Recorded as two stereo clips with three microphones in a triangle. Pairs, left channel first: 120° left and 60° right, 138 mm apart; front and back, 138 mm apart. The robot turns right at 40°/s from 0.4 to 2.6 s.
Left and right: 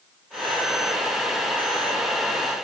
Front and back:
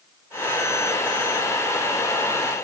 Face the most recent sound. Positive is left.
No sound to turn to.